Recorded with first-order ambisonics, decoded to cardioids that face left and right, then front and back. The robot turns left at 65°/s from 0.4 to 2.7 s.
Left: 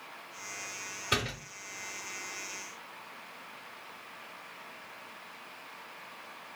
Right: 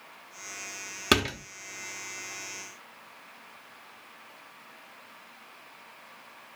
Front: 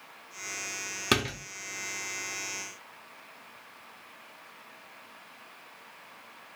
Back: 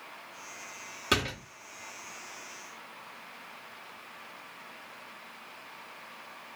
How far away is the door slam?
About 1.0 m.